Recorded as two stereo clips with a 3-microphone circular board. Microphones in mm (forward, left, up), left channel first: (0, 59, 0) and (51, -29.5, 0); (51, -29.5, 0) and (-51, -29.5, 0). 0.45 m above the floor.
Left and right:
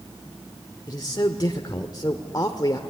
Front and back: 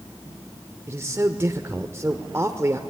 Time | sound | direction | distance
0.9 | a man speaking | 135° left | 1.0 m